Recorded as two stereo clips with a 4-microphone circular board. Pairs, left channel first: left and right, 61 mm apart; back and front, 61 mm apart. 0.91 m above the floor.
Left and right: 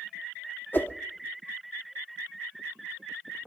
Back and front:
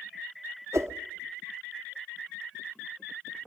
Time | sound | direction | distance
0.7 | a whoosh | 35° left | 0.8 m